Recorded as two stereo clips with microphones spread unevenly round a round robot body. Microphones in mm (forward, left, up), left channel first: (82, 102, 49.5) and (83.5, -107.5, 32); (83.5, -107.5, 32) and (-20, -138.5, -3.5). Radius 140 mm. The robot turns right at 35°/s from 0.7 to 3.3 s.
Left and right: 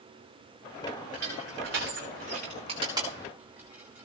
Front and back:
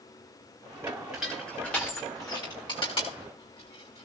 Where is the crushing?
85° right, 7.5 m; by 4.1 s 10° right, 7.5 m.